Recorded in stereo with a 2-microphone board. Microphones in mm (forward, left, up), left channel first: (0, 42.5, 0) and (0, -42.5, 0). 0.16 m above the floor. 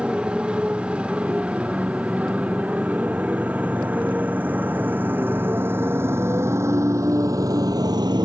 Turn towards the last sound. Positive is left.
turn(degrees=-70)  # may be behind; listen again after turning